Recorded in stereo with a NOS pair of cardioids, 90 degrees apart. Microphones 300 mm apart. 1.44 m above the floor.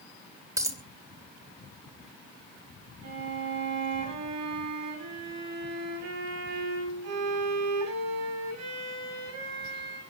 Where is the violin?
65° right, 9 m.